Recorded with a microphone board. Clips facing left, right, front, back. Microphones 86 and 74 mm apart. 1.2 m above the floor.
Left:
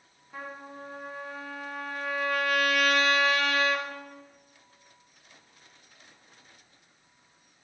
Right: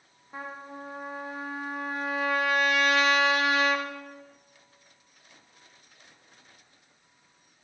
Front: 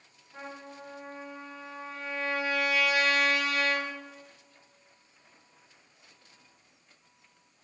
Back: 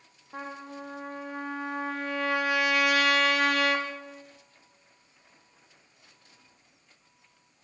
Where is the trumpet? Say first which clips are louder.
Right 2 dB, back 4 dB; 160° right, 1.4 m.